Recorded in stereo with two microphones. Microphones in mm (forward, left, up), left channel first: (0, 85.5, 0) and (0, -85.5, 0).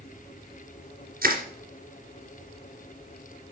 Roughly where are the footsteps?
I don't hear footsteps.